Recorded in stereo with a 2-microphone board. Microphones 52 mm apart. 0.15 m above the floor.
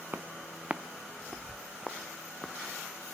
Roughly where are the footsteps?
Right.